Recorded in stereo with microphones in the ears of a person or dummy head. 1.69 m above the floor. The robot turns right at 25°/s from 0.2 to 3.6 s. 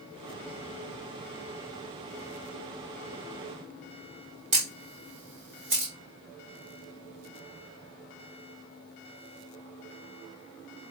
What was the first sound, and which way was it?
A camera shutter, 20° right (ahead or behind).